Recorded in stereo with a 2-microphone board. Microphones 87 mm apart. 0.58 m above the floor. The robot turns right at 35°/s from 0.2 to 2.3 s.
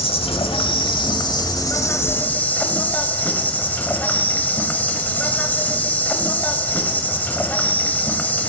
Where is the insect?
90° left, 0.9 m; by 8.5 s 160° left, 0.9 m.